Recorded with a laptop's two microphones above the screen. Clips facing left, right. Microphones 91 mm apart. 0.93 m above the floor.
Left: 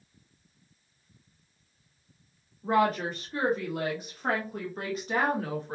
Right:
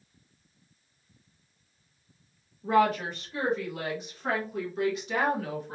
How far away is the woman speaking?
About 1.4 m.